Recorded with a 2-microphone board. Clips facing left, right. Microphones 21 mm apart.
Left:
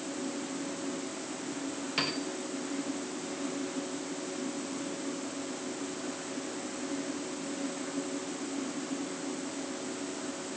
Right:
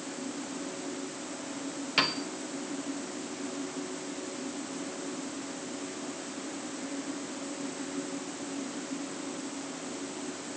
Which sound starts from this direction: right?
A piano, at 2.0 s.